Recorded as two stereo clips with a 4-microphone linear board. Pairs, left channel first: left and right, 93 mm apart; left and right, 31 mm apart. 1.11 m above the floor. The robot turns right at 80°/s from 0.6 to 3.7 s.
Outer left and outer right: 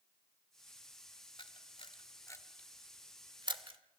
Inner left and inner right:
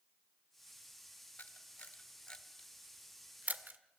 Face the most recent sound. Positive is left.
turn(degrees=-70)  # may be behind; listen again after turning